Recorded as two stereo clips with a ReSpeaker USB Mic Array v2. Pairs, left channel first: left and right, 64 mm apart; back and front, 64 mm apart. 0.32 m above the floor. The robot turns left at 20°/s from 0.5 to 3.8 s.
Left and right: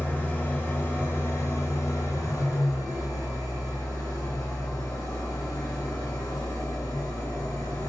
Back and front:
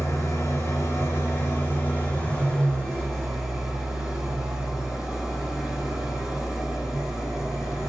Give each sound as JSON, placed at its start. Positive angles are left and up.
{"t": 0.0, "sound": "an engine running", "azimuth_deg": 145, "distance_m": 2.5}